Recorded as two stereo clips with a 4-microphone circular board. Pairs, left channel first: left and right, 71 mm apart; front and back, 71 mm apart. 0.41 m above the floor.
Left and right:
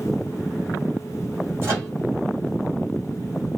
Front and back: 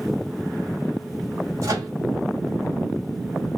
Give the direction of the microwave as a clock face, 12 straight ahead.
5 o'clock.